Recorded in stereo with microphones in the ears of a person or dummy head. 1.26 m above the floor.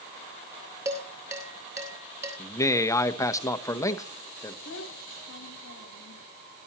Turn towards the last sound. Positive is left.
turn(degrees=70)  # may be behind; listen again after turning